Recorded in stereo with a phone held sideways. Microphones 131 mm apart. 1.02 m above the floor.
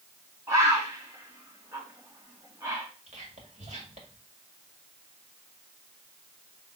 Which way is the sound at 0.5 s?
25° right (ahead or behind).